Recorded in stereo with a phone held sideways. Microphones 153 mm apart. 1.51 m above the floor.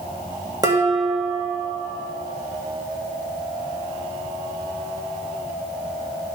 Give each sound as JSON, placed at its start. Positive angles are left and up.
{"t": 0.6, "sound": "dishes clattering", "side_deg": -25, "distance_m": 1.6}